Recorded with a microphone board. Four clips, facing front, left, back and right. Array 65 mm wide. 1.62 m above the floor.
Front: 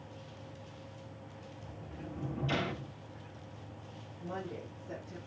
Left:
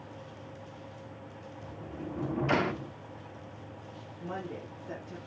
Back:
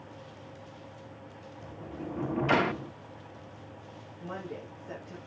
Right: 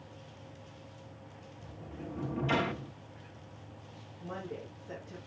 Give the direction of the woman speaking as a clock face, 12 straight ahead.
8 o'clock.